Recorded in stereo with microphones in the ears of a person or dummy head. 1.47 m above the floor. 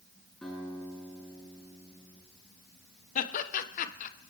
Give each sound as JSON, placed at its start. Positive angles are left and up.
{"t": 0.4, "sound": "a guitar", "side_deg": 0, "distance_m": 8.0}
{"t": 3.1, "sound": "laughter", "side_deg": 50, "distance_m": 1.1}